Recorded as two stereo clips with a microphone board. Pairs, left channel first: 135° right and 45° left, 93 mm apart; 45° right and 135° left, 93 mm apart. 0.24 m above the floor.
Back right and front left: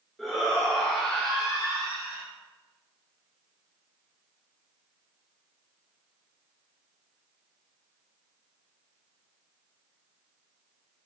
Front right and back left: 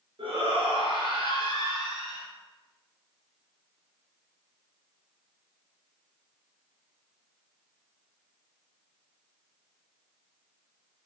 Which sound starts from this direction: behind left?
A shout, at 0.2 s.